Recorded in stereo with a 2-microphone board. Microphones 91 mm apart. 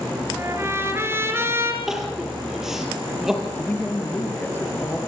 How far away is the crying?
About 4.5 m.